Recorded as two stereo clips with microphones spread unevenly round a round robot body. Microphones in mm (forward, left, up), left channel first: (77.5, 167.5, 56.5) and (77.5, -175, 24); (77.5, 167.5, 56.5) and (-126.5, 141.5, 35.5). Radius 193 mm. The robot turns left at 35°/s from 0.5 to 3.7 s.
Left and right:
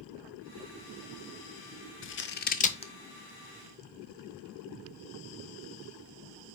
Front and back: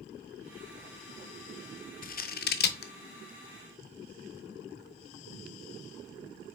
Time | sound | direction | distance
2.0 | scissors | 45° left | 0.6 m